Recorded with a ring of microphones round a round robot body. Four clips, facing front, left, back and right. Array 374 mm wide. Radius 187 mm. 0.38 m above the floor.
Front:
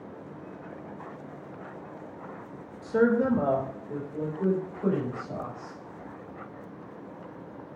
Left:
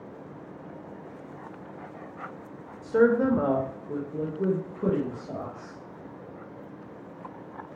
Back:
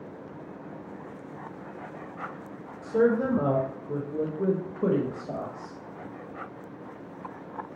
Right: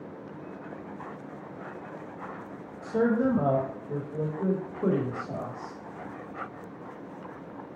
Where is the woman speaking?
60° left, 1.0 m; by 5.8 s straight behind, 1.8 m.